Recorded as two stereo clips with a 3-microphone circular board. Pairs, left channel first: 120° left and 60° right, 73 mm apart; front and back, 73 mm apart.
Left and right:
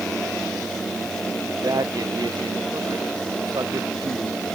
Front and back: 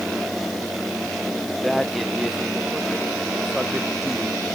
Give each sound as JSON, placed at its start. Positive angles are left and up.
{"t": 1.5, "sound": "a man speaking", "azimuth_deg": -90}